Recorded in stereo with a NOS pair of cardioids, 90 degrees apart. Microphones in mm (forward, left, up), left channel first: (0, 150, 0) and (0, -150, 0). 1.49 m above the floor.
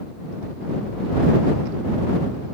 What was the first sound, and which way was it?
Only background noise.